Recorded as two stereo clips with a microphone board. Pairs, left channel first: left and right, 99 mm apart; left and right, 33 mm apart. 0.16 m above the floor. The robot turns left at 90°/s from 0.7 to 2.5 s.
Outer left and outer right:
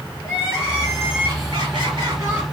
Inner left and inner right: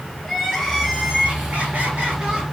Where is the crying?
5° right, 3 m; by 2.4 s 165° right, 3 m.